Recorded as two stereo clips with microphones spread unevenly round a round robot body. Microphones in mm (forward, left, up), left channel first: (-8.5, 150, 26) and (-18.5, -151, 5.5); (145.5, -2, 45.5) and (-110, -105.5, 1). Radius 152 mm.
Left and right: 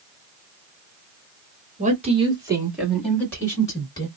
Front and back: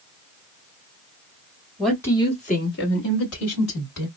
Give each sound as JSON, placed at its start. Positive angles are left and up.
{"t": 1.8, "sound": "a woman speaking", "azimuth_deg": -90, "distance_m": 1.4}